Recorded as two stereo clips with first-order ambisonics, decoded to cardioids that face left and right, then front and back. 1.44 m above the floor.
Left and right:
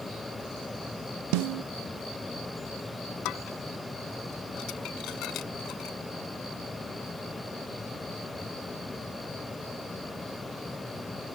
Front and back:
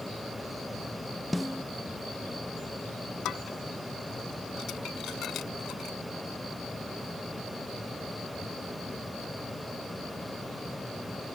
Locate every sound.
1.3 s a snare drum: 85° right
3.2 s dishes clattering: 50° left